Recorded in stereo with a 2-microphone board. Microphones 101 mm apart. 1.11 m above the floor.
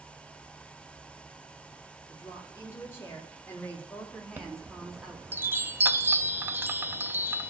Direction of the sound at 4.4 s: 20° right (ahead or behind).